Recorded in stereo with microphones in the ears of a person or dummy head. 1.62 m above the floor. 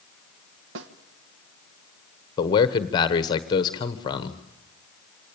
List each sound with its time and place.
0.8 s a snare drum: 70° right (ahead or behind), 1.3 m
2.4 s a man speaking: 25° left (ahead or behind), 1.1 m